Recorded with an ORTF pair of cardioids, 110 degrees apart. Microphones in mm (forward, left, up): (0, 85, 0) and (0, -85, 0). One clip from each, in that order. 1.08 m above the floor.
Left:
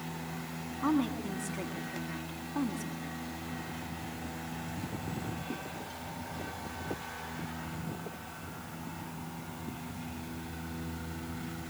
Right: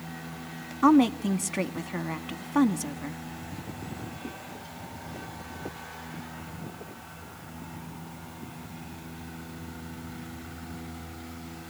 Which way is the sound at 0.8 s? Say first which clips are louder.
Right 11 dB; 65° right.